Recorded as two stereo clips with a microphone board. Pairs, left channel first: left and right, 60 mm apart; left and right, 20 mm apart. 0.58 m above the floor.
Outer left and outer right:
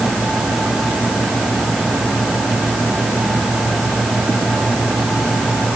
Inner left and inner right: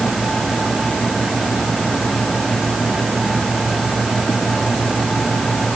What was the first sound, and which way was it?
Only background noise.